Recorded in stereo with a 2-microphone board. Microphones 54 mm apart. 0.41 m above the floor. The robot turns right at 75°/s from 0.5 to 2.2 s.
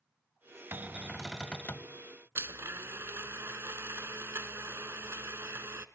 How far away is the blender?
About 0.6 m.